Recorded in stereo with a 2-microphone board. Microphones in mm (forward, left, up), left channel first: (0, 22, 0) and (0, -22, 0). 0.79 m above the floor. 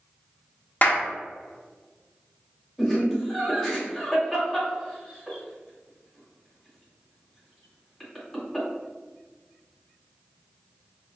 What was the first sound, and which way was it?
A clap, 40° left (ahead or behind).